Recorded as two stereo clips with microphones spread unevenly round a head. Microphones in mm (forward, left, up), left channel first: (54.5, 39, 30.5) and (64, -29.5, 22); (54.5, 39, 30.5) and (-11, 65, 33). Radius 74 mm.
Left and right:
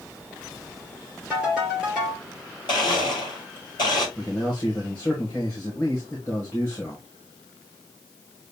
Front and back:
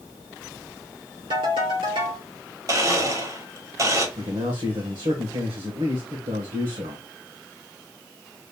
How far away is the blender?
About 2.0 m.